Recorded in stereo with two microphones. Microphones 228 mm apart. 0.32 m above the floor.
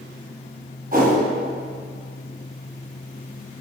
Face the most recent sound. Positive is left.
turn(degrees=-40)  # may be behind; listen again after turning